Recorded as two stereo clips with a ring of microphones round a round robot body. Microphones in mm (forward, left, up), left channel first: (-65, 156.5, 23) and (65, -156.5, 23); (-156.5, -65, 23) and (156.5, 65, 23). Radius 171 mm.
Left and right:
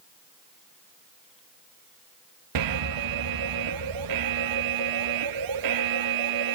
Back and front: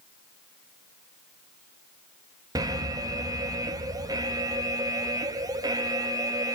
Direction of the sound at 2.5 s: 55° right.